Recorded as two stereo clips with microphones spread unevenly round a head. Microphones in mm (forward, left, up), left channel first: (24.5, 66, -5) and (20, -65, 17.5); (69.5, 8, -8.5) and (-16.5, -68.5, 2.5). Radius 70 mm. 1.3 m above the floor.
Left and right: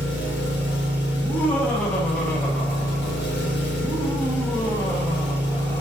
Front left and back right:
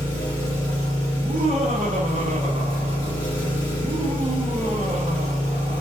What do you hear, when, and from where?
0.0 s an engine running: 105° left, 1.4 m
1.1 s laughter: 170° left, 0.5 m